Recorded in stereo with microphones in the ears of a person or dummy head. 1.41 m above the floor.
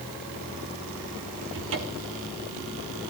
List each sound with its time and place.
1.5 s a cupboard door: 70° right (ahead or behind), 3 m